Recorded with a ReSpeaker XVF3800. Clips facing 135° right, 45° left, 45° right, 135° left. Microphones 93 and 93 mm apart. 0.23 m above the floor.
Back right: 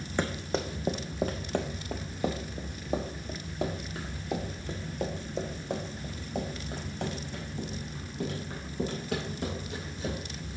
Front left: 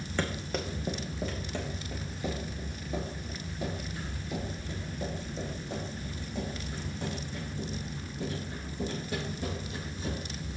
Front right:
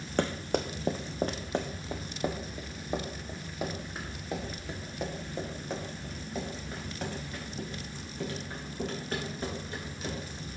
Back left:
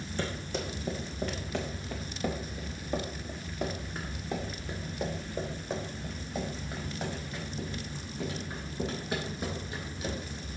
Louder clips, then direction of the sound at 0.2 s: Back right 3 dB, front right 6 dB; 65° right.